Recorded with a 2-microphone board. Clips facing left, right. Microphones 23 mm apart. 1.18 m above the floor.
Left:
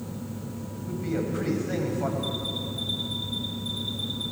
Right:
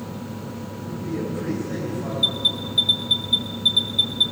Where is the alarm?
80° right, 2.5 m.